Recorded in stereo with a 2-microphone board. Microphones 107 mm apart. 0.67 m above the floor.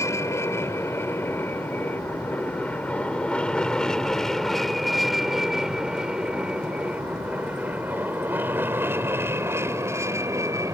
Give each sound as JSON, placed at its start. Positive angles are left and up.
{"t": 0.0, "sound": "an aircraft", "side_deg": 30}